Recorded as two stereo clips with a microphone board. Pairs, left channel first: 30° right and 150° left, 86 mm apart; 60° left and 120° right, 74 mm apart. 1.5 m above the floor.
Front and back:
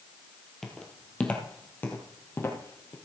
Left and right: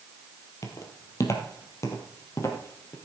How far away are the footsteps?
About 2 m.